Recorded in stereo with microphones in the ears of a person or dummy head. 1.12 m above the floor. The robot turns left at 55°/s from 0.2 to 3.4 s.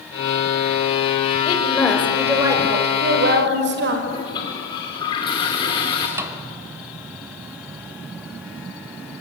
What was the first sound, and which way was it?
A woman speaking, 45° left.